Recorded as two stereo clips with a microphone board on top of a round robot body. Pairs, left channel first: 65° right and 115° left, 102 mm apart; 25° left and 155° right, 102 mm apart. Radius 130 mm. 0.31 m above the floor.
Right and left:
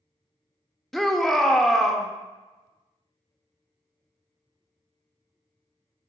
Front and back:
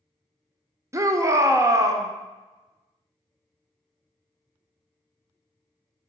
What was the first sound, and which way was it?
A shout, 150° right.